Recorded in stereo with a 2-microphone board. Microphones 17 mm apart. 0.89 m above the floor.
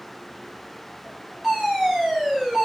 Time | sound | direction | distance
1.4 | a fire alarm | 45° right (ahead or behind) | 8 m